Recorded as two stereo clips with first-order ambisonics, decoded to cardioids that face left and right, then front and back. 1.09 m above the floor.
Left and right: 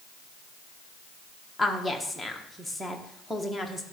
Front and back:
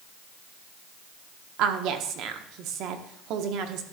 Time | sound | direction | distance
1.6 | a woman speaking | straight behind | 1.0 m